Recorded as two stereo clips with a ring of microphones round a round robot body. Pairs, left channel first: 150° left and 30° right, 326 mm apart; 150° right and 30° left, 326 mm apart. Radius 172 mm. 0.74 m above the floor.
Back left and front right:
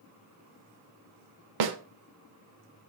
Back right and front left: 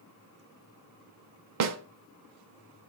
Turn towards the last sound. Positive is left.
turn(degrees=-15)